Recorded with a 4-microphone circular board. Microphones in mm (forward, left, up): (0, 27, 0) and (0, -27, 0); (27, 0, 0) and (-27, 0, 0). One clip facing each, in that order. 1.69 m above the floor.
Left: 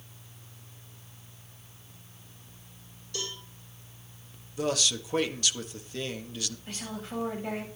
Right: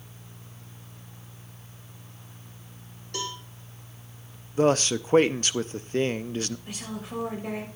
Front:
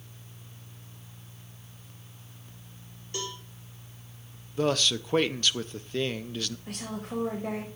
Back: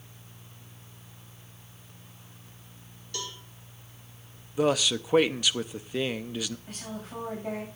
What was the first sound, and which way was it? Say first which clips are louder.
A cowbell: right 4 dB, front 3 dB; 60° right.